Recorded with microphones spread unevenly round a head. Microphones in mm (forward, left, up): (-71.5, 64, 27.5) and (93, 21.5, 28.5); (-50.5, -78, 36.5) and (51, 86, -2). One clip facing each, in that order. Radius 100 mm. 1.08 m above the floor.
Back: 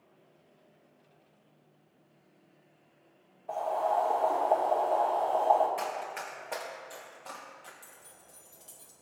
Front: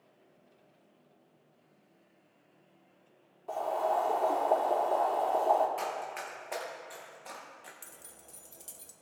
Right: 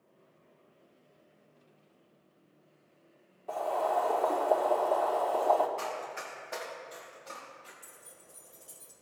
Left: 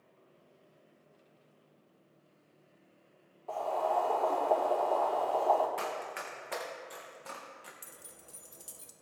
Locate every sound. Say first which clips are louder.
3.5 s boiling: back 1 dB, right 1 dB; 50° right, 1.8 m
5.8 s running footsteps: back 1 dB, even; 80° left, 3.5 m; by 7.7 s 60° left, 3 m
7.8 s keys jangling: front 1 dB, left 1 dB; 20° left, 1.1 m